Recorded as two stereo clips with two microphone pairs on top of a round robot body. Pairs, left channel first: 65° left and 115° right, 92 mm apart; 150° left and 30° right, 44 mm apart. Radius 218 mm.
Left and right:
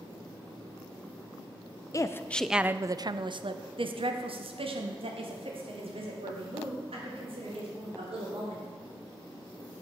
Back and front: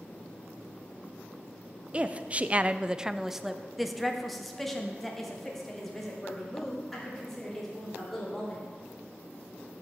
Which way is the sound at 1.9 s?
35° left.